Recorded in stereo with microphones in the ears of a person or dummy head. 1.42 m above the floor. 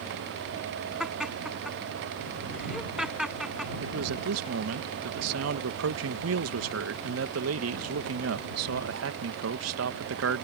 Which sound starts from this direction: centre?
Laughter, at 1.0 s.